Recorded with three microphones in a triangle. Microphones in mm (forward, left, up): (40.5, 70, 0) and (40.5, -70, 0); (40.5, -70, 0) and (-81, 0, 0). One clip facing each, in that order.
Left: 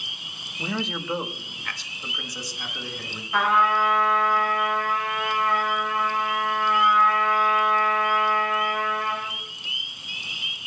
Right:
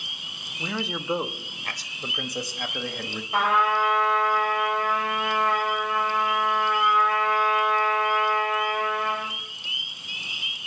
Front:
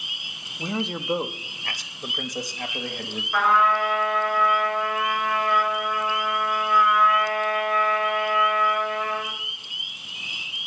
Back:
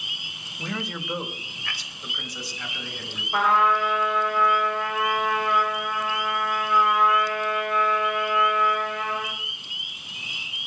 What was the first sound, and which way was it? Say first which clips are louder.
A man speaking: left 1 dB, front 4 dB; 20° left.